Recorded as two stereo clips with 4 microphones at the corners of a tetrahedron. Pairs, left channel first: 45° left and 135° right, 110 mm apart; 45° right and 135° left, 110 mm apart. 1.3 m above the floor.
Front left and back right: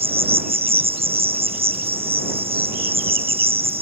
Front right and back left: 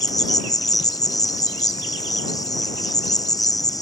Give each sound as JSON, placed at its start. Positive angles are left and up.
{"t": 0.0, "sound": "an insect", "azimuth_deg": -105}